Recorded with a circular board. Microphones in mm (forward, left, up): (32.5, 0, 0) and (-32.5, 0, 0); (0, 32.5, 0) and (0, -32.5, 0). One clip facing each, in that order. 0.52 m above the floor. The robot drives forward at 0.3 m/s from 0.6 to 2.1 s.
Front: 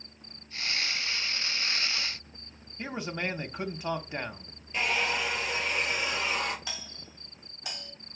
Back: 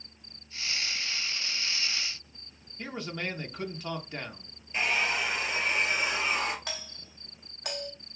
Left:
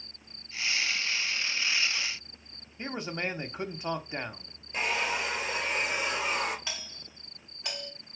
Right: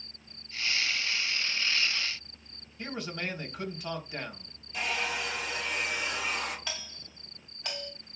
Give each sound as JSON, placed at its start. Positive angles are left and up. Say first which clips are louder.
{"t": 2.8, "sound": "a man speaking", "louder": "front 2 dB, left 2 dB", "azimuth_deg": 55, "distance_m": 0.8}
{"t": 4.7, "sound": "a hair dryer", "louder": "even, left 2 dB", "azimuth_deg": 105, "distance_m": 2.5}
{"t": 6.7, "sound": "a doorbell", "louder": "back 1 dB, even", "azimuth_deg": 170, "distance_m": 2.5}